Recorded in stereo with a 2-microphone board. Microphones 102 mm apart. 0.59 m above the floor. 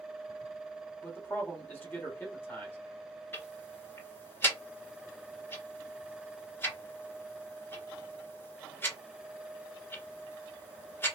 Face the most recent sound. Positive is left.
turn(degrees=20)  # may be behind; listen again after turning